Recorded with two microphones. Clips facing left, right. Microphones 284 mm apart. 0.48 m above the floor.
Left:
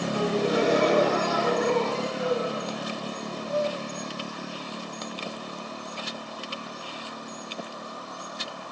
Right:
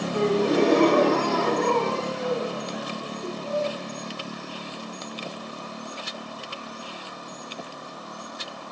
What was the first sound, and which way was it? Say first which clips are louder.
A gasp: right 5 dB; 65° right (ahead or behind).